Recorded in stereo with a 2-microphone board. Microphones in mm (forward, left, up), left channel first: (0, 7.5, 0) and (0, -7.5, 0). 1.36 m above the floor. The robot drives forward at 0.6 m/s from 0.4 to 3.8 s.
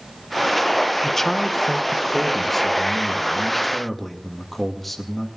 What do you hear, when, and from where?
1.0 s a man speaking: 20° left (ahead or behind), 1.0 m; by 5.3 s 5° left (ahead or behind), 2.5 m